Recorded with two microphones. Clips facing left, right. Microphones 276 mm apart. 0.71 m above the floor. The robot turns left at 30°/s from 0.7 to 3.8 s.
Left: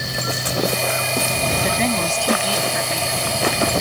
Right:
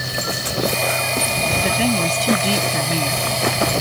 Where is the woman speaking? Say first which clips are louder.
Right 3 dB; 5° right; by 3.2 s 50° right.